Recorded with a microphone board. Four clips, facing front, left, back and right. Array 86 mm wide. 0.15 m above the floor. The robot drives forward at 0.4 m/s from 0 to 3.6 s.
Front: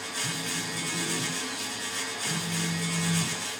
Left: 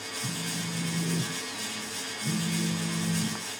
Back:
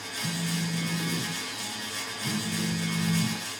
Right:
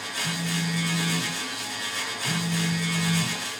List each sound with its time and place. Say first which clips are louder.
0.2 s a phone buzzing: right 6 dB, back 5 dB; 170° left, 5 m